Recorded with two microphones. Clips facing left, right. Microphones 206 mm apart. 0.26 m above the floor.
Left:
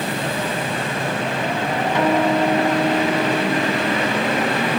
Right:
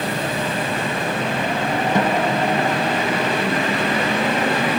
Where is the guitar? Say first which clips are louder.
Left 4 dB; 45° right (ahead or behind), 2.5 m.